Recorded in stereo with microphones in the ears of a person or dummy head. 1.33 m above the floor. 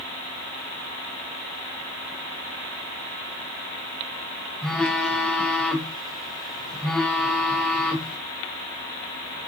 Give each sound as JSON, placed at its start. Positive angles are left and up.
{"t": 4.6, "sound": "a phone buzzing", "side_deg": 0, "distance_m": 1.2}